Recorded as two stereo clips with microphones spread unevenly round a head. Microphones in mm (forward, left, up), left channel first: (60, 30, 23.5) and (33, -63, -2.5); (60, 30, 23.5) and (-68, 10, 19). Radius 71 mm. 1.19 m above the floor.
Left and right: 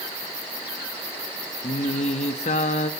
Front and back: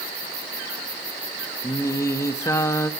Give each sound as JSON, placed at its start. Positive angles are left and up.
{"t": 1.6, "sound": "singing", "azimuth_deg": 80, "distance_m": 1.2}